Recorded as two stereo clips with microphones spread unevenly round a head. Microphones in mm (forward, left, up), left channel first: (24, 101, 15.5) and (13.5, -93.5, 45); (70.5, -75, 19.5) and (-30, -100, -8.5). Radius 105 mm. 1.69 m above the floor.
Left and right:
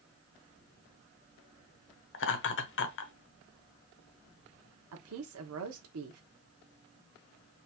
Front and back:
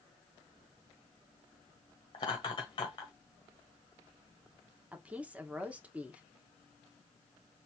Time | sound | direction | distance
2.1 | laughter | 60° left | 1.0 m
4.9 | a woman speaking | 85° right | 1.1 m